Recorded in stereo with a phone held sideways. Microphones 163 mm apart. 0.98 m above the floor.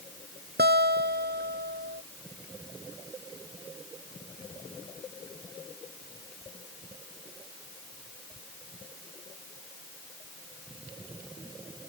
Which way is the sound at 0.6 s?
90° right.